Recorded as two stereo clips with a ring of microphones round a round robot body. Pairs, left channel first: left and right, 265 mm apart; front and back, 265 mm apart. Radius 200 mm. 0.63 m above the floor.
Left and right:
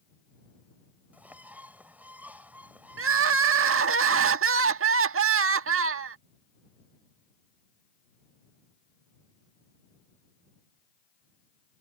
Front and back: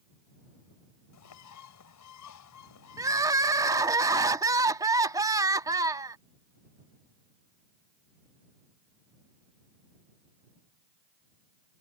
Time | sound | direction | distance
1.1 | a bird | 5° right | ?
3.0 | crying | 105° right | ?